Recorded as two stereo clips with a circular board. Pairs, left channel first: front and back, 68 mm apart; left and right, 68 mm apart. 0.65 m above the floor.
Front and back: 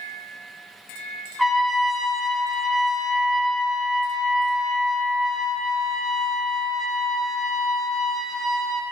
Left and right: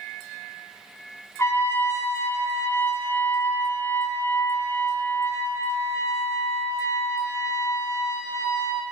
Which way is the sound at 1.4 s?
90° left.